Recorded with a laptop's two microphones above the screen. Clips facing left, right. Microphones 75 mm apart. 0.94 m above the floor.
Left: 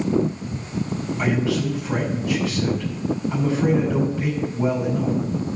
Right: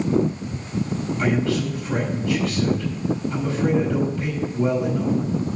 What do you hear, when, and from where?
1.2 s a man speaking: 20° left (ahead or behind), 5 m